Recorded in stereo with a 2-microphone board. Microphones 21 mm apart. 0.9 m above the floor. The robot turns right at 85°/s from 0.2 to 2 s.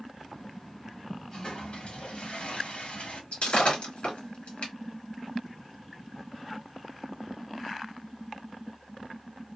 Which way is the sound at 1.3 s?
25° left.